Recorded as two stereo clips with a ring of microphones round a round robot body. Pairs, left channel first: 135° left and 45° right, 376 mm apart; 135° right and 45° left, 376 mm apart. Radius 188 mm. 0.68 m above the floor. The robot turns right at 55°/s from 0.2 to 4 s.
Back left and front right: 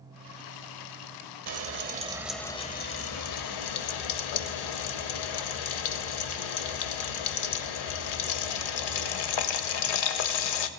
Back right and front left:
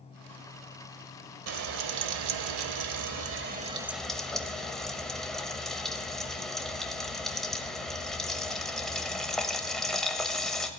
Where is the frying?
5° right, 0.7 m; by 10.7 s 135° left, 0.7 m.